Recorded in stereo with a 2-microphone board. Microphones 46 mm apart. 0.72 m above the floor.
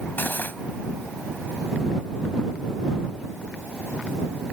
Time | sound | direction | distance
0.2 | cutlery clinking | 45° left (ahead or behind) | ?